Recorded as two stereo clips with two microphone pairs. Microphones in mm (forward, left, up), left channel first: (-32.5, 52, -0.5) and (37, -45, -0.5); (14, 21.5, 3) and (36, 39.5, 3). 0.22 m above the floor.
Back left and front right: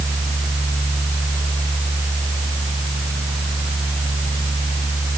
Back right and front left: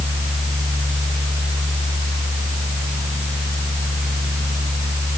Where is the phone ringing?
I don't hear a phone ringing.